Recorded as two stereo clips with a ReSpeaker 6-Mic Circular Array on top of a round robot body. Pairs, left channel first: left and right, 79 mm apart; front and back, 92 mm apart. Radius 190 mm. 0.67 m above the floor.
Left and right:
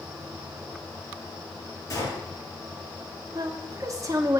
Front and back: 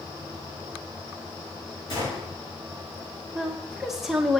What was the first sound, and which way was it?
A gunshot, 40° left.